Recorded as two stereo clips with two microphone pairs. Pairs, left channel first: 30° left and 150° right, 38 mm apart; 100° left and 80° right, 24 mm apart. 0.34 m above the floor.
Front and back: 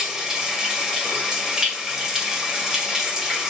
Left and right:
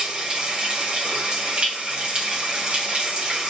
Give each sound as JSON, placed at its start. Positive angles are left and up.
{"t": 0.0, "sound": "running water", "azimuth_deg": -85, "distance_m": 1.5}